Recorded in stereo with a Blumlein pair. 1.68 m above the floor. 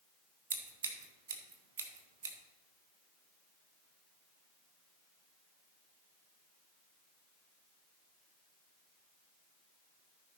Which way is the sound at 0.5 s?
60° right.